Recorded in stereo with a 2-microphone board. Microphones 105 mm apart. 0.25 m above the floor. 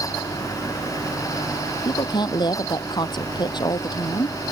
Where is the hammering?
I don't hear hammering.